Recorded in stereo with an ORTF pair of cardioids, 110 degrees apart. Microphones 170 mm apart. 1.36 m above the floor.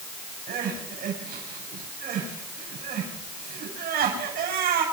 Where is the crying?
65° right, 6.5 m.